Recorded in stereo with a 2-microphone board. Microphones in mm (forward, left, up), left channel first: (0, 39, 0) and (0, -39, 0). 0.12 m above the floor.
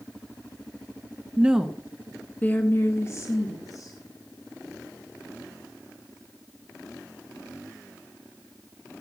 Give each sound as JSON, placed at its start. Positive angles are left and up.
{"t": 1.4, "sound": "a woman speaking", "side_deg": -20, "distance_m": 1.1}